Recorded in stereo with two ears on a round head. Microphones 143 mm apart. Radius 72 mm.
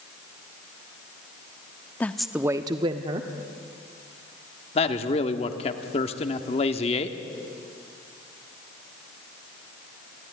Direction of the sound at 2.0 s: 10° left (ahead or behind).